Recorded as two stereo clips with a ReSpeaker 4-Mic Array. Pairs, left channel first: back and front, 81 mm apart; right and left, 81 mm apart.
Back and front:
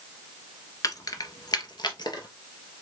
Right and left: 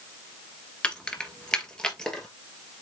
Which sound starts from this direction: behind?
Keys jangling, at 0.8 s.